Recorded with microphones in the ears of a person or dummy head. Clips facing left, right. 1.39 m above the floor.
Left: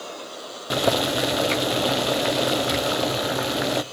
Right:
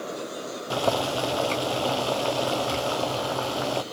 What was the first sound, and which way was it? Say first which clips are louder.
Boiling: left 3 dB; 25° left (ahead or behind).